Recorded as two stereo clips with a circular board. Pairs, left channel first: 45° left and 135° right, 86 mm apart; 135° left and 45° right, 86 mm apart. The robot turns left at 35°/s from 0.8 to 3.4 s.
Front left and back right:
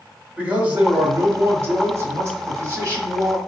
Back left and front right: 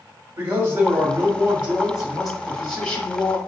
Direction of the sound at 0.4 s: 85° right.